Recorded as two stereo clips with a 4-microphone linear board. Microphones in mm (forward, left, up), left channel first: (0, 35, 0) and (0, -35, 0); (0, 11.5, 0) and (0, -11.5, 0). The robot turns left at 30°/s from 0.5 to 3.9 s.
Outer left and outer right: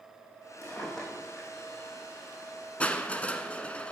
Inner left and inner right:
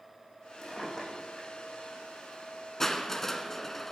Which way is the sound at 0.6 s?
20° left (ahead or behind).